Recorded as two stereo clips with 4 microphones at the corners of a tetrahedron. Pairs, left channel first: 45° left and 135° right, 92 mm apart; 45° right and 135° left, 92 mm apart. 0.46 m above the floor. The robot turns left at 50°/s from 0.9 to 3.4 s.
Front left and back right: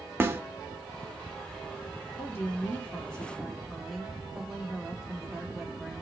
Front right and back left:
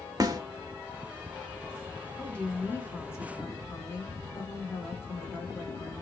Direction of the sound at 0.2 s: 165° left.